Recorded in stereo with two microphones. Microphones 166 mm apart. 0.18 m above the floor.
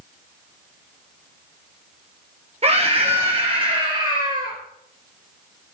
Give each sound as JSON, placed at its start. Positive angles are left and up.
{"t": 2.6, "sound": "a scream", "side_deg": -40, "distance_m": 5.0}